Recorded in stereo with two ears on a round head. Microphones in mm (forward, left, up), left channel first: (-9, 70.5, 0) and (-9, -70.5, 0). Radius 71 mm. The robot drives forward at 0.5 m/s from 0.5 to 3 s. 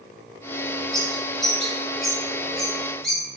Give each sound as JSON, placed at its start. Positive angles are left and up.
{"t": 0.9, "sound": "a bird", "side_deg": 5, "distance_m": 2.5}